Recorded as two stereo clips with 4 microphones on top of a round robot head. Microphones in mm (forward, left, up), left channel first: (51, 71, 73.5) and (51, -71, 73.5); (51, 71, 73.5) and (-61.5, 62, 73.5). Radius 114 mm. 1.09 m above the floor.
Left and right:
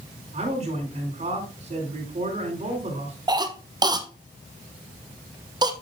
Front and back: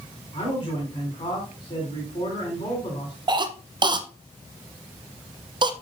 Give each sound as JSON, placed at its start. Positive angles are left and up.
{"t": 0.3, "sound": "a man speaking", "azimuth_deg": -50, "distance_m": 5.0}
{"t": 3.3, "sound": "a cough", "azimuth_deg": -145, "distance_m": 1.0}